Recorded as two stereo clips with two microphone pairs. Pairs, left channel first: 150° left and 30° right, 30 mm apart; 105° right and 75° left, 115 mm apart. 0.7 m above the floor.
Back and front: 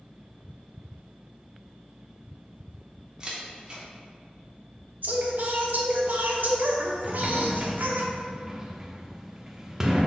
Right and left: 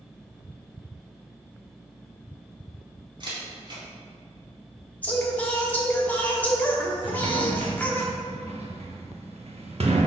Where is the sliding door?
45° left, 0.7 m.